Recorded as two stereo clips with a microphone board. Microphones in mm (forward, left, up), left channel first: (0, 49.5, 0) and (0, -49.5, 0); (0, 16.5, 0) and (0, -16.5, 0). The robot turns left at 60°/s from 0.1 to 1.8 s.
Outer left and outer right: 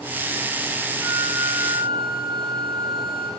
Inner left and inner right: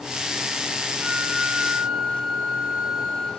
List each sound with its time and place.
1.0 s a flute: 20° right, 5.5 m; by 3.3 s 70° right, 5.5 m